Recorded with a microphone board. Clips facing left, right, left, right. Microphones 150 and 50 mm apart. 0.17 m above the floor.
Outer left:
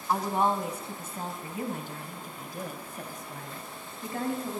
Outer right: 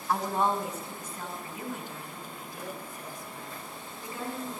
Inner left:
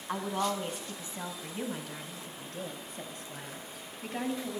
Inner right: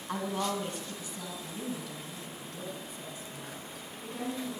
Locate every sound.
0.1 s a woman speaking: 5° left (ahead or behind), 1.4 m; by 4.6 s 50° left (ahead or behind), 3.5 m